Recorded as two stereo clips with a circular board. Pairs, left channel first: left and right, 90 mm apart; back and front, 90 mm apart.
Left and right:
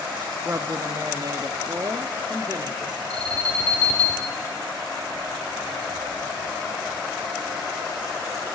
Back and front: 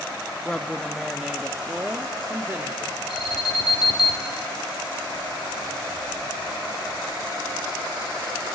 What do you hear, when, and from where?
0.5 s a woman speaking: 115° right, 1.0 m; by 3.0 s 55° right, 1.8 m
3.1 s an alarm: 165° left, 4 m